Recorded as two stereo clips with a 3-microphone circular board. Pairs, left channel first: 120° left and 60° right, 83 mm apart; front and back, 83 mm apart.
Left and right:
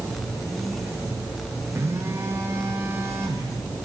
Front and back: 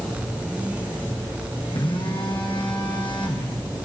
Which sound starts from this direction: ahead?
A phone buzzing, at 1.8 s.